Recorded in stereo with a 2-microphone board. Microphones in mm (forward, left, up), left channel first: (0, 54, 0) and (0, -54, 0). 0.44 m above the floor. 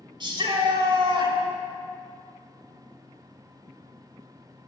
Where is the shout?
50° right (ahead or behind), 1.8 m.